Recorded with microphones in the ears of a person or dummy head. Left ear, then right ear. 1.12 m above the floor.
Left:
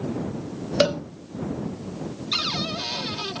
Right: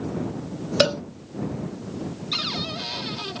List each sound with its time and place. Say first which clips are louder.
0.8 s a cowbell: right 1 dB; 10° right (ahead or behind)
2.3 s a cupboard door: left 2 dB; 5° left (ahead or behind)